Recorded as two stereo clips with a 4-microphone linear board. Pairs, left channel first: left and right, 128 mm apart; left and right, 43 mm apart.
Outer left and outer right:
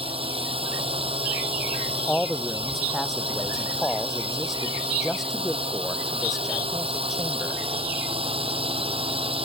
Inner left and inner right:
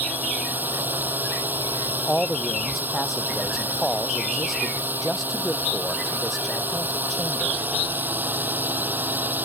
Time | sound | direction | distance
0.0 | a drone | 45° right (ahead or behind) | ?
2.1 | a man speaking | centre (ahead or behind) | ?